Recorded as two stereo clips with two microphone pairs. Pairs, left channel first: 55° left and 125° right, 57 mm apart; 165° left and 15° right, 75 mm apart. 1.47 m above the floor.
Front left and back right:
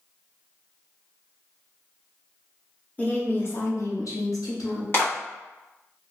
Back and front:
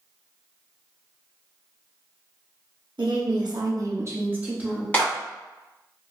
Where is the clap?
100° left, 1.6 m.